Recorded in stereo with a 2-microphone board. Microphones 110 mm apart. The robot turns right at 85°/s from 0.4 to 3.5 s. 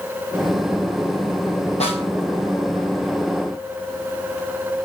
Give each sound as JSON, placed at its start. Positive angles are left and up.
{"t": 1.8, "sound": "a snare drum", "side_deg": 75, "distance_m": 4.5}